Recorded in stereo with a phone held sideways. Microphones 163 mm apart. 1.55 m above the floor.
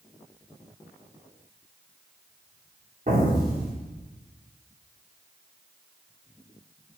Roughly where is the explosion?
Right.